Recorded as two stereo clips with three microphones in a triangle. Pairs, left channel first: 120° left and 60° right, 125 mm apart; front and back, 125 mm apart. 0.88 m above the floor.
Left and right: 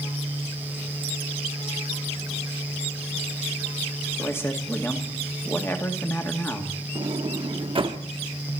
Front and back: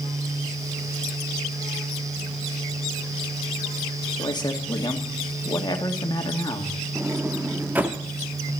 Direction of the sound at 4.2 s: 50° left.